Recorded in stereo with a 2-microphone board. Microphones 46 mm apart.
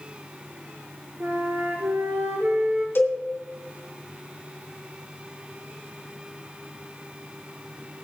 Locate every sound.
1.2 s a flute: 60° right (ahead or behind), 3 m
3.0 s a cowbell: 55° left (ahead or behind), 2.5 m